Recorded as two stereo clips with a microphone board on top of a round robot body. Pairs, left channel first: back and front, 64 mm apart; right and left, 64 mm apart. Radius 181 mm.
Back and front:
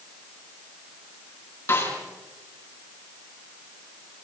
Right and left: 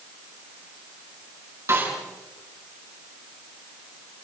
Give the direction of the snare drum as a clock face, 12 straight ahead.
8 o'clock.